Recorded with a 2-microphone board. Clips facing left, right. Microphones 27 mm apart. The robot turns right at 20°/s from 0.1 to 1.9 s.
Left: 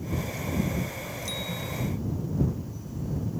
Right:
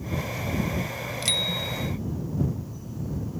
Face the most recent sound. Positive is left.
turn(degrees=-65)  # may be behind; listen again after turning